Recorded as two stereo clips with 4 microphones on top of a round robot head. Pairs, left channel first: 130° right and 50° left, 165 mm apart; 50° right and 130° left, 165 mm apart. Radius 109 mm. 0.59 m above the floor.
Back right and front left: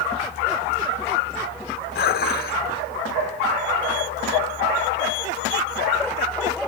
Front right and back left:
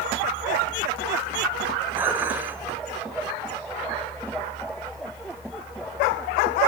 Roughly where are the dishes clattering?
Behind right.